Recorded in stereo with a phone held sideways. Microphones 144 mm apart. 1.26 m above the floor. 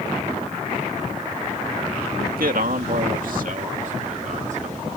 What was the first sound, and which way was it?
A man speaking, 85° right.